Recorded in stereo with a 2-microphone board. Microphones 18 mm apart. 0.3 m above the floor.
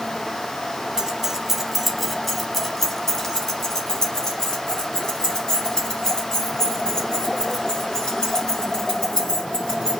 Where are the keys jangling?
35° right (ahead or behind), 1.4 m; by 9.9 s 40° left (ahead or behind), 8 m.